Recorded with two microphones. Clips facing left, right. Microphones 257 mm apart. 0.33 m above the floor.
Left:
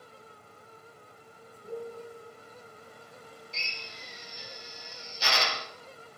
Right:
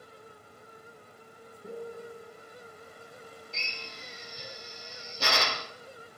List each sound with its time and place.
1.6 s a piano: 40° right (ahead or behind), 4.5 m
3.5 s a drill: 55° right (ahead or behind), 2 m